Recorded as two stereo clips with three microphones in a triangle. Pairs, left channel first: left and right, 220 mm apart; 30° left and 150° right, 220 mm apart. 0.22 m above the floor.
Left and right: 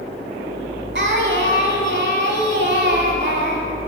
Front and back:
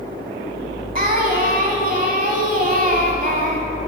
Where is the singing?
110° right, 0.8 m.